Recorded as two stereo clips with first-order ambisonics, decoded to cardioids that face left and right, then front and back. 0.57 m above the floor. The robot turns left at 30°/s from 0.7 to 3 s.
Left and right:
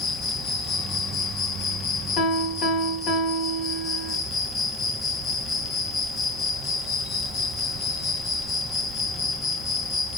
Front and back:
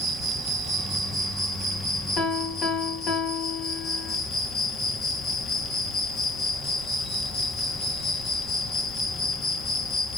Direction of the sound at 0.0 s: 100° left.